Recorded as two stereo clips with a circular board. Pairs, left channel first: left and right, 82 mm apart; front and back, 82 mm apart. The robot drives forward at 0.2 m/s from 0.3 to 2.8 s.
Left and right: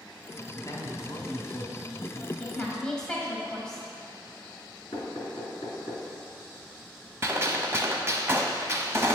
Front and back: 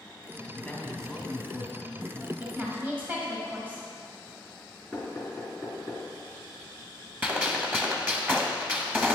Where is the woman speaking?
150° left, 0.9 m; by 3.9 s 155° left, 1.0 m.